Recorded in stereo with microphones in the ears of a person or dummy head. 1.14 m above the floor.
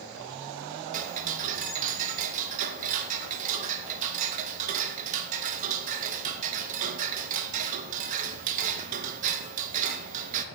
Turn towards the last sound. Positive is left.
turn(degrees=-45)  # may be behind; listen again after turning